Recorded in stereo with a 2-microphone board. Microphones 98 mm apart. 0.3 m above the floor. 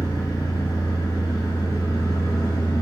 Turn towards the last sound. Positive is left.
turn(degrees=35)  # may be behind; listen again after turning